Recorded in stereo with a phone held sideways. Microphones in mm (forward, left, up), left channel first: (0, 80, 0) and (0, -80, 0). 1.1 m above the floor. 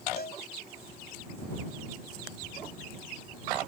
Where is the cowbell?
70° left (ahead or behind).